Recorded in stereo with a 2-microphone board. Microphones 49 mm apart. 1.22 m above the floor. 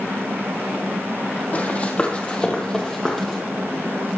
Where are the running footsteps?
30° left (ahead or behind), 2.5 m; by 3.4 s centre (ahead or behind), 2.5 m.